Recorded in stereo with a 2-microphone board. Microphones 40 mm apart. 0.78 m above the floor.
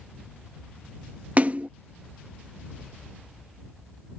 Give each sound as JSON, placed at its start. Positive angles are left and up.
{"t": 1.4, "sound": "a splash", "side_deg": -40}